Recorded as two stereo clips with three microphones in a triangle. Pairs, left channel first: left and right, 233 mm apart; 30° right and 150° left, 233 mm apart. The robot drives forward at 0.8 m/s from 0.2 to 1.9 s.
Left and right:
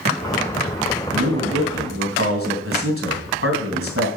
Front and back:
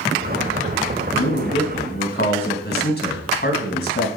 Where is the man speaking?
60° right, 3 m; by 4.1 s 70° right, 2.5 m.